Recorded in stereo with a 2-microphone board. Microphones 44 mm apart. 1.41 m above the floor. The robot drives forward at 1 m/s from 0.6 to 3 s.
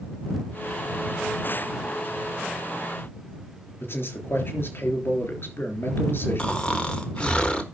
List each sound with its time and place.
3.8 s a man speaking: 60° left (ahead or behind), 3.5 m
6.4 s snoring: 25° left (ahead or behind), 1.3 m